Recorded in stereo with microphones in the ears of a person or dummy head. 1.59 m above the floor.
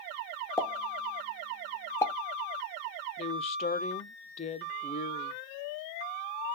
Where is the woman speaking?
35° left (ahead or behind), 0.8 m.